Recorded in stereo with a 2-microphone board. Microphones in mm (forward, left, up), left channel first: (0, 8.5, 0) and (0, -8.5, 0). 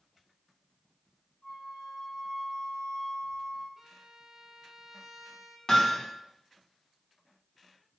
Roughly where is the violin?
Centre.